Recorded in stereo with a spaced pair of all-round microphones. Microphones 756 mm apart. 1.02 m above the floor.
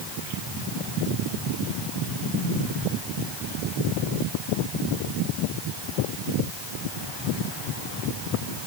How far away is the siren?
I don't hear a siren.